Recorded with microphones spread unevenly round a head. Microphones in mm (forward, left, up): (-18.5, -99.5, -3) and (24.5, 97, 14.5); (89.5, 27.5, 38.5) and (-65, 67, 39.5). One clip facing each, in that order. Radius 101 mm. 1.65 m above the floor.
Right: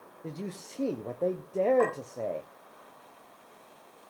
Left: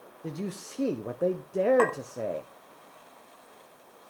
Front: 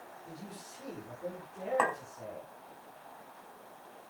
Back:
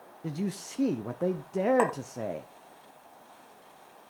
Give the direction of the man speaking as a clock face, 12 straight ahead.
7 o'clock.